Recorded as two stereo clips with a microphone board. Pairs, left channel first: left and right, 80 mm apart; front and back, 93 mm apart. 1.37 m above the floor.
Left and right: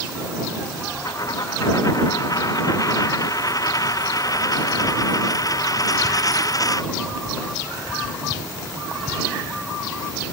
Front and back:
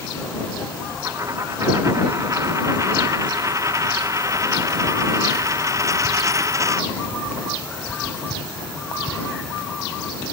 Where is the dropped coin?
125° left.